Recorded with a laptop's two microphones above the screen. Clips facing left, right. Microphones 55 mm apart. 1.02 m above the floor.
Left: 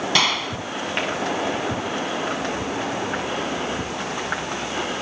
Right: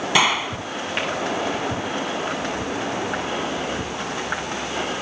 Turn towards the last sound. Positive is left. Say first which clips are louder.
# right 4 dB
turn(degrees=-15)  # may be behind; listen again after turning